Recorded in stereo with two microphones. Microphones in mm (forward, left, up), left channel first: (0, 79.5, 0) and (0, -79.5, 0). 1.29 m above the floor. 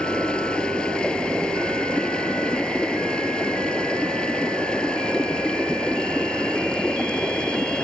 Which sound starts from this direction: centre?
Running water, at 0.0 s.